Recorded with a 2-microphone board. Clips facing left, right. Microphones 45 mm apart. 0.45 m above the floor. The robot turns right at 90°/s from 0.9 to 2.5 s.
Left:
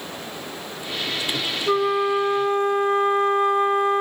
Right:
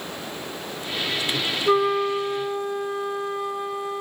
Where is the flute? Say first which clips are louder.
Even; 15° right, 1.3 m; by 4.0 s 60° left, 1.3 m.